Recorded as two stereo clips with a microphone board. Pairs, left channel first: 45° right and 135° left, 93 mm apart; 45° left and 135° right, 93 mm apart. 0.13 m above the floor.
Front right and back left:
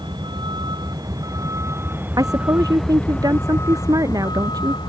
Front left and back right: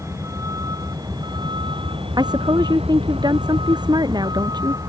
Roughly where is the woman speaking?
Behind.